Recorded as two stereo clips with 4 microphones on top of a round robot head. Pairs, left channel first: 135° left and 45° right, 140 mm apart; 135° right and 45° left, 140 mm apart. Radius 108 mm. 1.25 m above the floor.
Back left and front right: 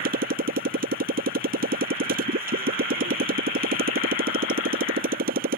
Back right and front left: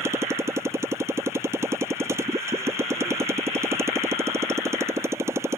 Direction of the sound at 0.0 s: 25° right.